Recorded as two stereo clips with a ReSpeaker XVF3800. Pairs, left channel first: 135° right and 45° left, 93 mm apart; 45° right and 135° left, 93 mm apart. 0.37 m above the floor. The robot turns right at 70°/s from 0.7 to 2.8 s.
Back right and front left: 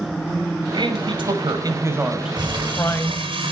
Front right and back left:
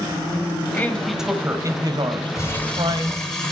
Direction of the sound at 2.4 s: 10° left.